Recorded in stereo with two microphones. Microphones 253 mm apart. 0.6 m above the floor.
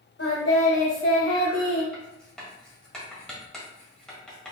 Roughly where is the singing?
Left.